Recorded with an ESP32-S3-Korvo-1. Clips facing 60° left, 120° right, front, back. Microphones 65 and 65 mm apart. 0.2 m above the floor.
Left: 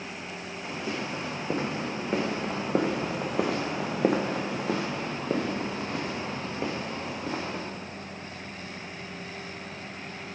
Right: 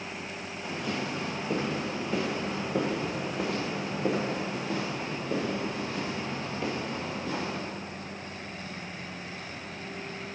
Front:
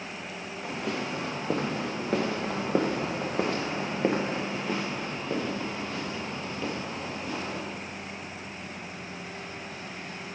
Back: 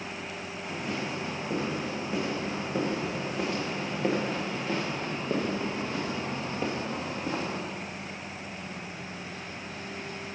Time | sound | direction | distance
0.6 | footsteps | 10° right | 2 m